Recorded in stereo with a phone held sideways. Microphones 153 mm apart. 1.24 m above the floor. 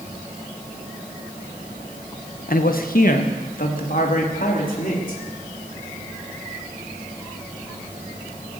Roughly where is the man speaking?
Left.